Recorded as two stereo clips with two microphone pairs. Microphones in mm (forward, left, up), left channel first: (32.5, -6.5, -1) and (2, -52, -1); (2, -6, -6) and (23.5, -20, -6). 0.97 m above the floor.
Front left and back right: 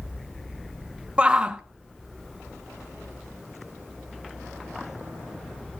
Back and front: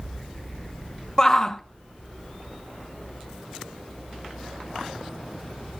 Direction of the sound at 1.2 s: 170° right.